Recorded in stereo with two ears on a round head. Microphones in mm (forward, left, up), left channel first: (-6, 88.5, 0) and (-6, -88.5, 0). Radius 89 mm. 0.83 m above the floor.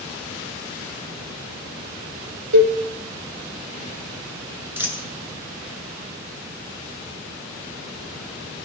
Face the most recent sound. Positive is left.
turn(degrees=-10)  # may be behind; listen again after turning